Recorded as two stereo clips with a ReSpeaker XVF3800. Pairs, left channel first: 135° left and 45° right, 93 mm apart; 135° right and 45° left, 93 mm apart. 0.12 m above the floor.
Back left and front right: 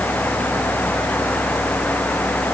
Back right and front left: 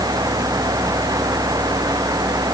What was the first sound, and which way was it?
Only background noise.